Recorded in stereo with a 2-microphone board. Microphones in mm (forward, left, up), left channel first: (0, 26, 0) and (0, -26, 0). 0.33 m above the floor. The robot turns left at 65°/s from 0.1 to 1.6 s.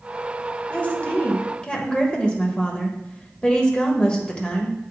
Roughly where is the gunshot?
I don't hear a gunshot.